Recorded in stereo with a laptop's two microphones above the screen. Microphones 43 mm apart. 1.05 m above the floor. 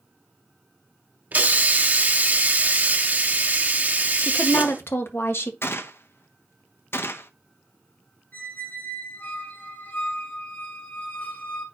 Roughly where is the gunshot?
Left.